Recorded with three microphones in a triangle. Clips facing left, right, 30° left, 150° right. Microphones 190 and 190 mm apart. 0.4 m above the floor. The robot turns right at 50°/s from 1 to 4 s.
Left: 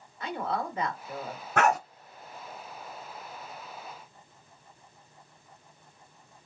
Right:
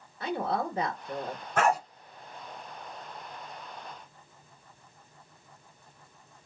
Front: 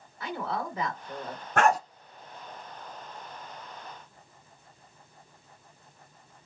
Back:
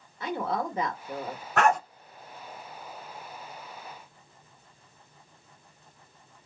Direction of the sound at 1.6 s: 70° left.